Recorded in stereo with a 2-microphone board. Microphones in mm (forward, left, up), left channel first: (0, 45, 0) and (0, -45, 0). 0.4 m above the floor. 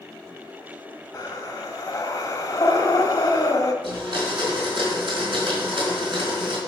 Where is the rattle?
I don't hear a rattle.